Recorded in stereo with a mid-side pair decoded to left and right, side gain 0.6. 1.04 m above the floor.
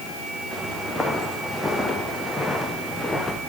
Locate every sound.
0.5 s footsteps: straight ahead, 8.5 m; by 3.4 s 5° left, 5.5 m